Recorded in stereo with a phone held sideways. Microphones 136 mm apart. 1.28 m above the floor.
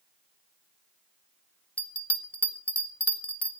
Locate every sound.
1.8 s a bell: 10° left (ahead or behind), 1.4 m